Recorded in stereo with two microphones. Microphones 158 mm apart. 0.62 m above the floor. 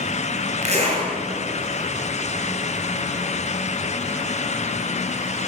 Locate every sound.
0.6 s a zipper: 45° right (ahead or behind), 9.5 m